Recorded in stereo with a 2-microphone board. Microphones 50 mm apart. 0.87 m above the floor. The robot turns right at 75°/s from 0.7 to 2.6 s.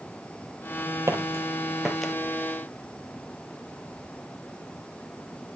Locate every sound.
1.1 s footsteps: 65° right (ahead or behind), 1.7 m; by 2.1 s 15° left (ahead or behind), 1.2 m